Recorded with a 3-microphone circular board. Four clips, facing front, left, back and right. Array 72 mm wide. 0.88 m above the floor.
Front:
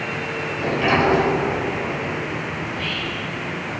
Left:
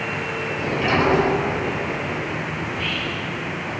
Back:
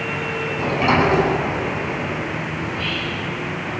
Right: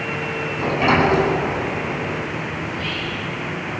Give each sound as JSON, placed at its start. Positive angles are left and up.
{"t": 0.6, "sound": "a sliding door", "azimuth_deg": -135, "distance_m": 8.5}
{"t": 2.6, "sound": "whispering", "azimuth_deg": 140, "distance_m": 4.5}